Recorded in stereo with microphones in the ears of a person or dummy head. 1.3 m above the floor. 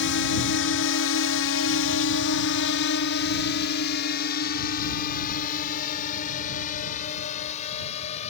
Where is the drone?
55° left (ahead or behind); by 8.3 s 40° left (ahead or behind).